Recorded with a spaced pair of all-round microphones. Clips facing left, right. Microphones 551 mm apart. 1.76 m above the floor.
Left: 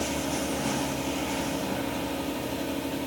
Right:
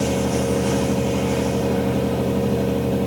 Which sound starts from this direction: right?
A fan, at 0.0 s.